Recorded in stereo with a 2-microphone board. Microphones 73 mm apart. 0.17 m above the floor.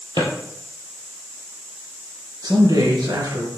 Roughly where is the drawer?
Right.